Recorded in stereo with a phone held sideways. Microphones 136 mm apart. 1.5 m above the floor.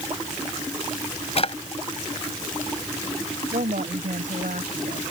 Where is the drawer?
45° left (ahead or behind).